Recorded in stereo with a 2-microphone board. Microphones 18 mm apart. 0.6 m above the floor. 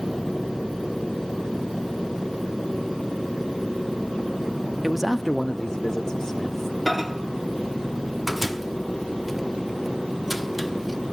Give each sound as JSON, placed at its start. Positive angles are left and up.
{"t": 4.8, "sound": "a man speaking", "side_deg": -5, "distance_m": 0.7}
{"t": 6.9, "sound": "a microwave", "side_deg": 0, "distance_m": 0.7}